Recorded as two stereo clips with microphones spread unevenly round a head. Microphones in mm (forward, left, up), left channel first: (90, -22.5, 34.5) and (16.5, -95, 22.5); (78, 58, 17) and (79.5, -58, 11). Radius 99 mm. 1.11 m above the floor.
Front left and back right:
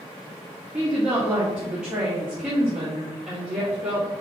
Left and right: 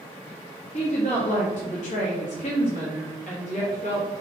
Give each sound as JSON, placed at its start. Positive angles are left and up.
{"t": 0.7, "sound": "a woman speaking", "azimuth_deg": 140, "distance_m": 1.3}